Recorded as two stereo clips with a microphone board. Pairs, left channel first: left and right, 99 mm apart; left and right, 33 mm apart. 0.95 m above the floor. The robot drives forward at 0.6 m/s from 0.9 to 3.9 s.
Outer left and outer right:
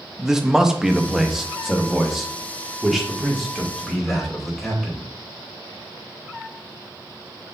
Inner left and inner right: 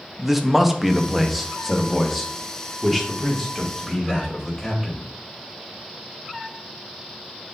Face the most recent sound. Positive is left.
turn(degrees=0)  # may be behind; listen again after turning